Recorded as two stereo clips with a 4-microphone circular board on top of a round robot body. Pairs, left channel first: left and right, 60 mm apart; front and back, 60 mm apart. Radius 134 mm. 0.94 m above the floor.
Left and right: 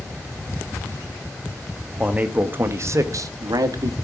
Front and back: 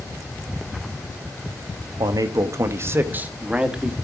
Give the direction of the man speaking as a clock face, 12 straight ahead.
5 o'clock.